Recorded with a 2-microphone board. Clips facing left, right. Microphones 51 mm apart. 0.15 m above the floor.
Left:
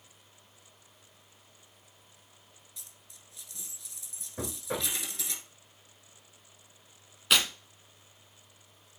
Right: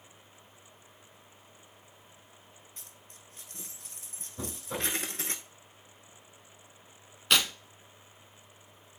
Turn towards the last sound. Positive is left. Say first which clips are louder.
# even
turn(degrees=5)  # may be behind; listen again after turning